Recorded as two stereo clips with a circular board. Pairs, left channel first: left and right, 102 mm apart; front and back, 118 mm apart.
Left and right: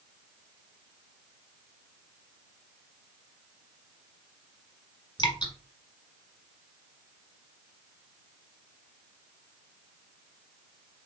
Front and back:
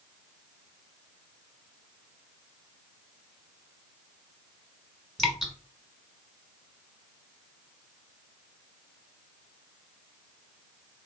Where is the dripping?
90° left, 1.3 m.